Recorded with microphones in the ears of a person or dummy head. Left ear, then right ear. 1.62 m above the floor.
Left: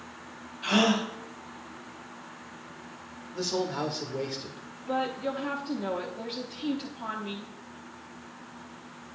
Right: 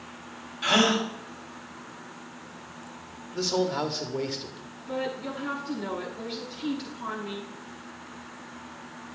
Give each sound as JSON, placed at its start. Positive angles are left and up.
{"t": 0.6, "sound": "a gasp", "side_deg": -55, "distance_m": 2.0}
{"t": 3.3, "sound": "a man speaking", "side_deg": -5, "distance_m": 0.6}
{"t": 4.9, "sound": "a woman speaking", "side_deg": 25, "distance_m": 0.8}